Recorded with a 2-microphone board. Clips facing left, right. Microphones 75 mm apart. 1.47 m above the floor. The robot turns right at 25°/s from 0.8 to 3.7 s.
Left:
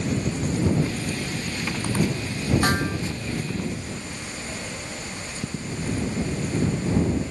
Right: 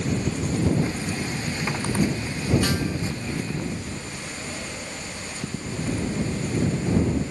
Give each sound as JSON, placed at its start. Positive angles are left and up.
{"t": 2.6, "sound": "a snare drum", "side_deg": 45}